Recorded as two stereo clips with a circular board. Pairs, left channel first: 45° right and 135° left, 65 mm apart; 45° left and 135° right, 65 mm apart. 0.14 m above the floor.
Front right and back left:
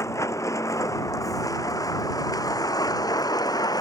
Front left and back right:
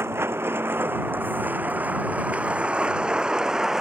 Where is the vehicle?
85° right; by 3.8 s 50° right.